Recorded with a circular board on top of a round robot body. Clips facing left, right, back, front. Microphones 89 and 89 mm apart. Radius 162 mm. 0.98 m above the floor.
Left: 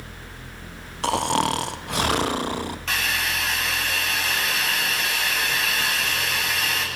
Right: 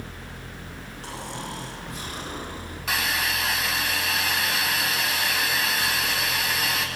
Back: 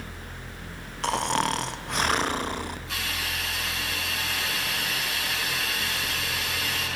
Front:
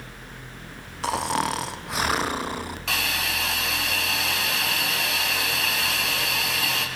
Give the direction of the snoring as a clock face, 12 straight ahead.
9 o'clock.